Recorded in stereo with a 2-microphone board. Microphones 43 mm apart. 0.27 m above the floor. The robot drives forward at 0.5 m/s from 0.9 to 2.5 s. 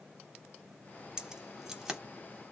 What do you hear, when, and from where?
1.2 s keys jangling: 15° right (ahead or behind), 0.6 m; by 2.0 s 10° right (ahead or behind), 0.9 m